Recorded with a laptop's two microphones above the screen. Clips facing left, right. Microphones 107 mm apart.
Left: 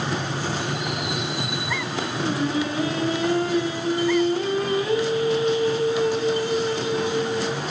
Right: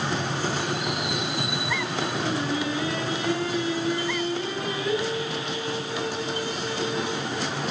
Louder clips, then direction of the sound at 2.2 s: Left 6 dB; 40° left (ahead or behind).